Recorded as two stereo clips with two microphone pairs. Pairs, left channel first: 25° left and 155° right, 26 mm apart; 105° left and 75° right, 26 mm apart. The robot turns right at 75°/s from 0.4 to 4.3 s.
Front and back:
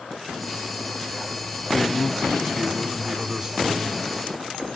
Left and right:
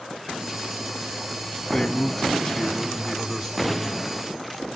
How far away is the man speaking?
About 1.6 m.